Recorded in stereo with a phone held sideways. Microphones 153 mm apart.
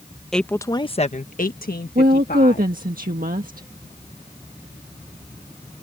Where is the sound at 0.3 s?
5° left (ahead or behind); by 2.7 s 85° left.